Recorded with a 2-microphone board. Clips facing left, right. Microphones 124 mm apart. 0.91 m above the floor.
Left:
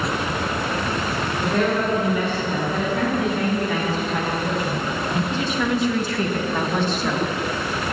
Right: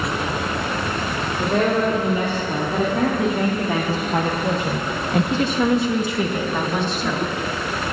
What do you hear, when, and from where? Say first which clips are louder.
1.4 s a woman speaking: right 3 dB; 40° right (ahead or behind), 3.5 m; by 7.4 s 5° left (ahead or behind), 2 m